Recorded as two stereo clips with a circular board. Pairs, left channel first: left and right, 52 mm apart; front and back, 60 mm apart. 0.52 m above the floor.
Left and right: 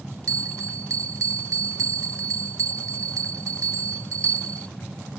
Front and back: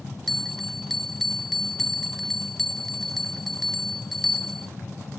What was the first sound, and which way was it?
A bell, 85° right.